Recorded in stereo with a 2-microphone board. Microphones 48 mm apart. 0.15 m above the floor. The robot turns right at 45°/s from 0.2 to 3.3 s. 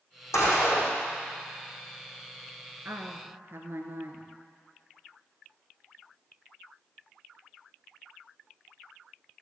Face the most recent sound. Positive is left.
turn(degrees=-55)  # may be behind; listen again after turning